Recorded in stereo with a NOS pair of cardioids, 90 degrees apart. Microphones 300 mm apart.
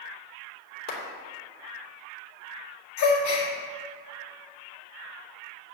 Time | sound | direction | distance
0.9 | a clap | 55° left | 3 m
3.0 | a gasp | 65° left | 2 m